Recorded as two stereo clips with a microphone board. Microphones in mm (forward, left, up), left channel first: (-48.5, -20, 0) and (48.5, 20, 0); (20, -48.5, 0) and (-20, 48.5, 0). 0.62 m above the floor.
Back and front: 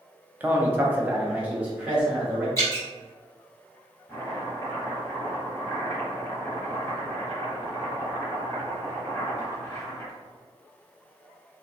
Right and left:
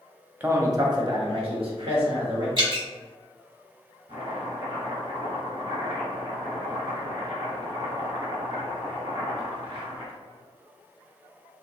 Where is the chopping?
145° left, 1.9 m.